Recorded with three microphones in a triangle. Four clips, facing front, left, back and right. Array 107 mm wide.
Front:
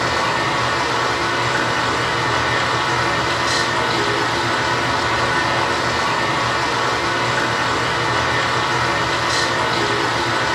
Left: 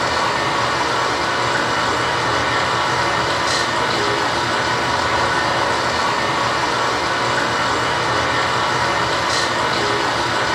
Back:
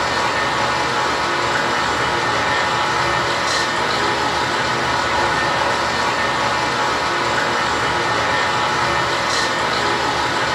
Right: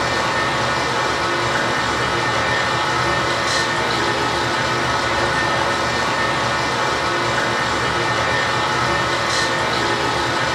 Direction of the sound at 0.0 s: 40° left.